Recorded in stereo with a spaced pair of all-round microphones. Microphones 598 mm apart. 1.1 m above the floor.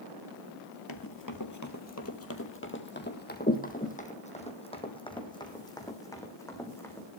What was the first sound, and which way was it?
Running footsteps, 35° left (ahead or behind).